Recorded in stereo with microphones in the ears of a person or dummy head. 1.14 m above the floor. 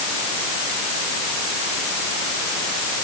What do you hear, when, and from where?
Only background noise.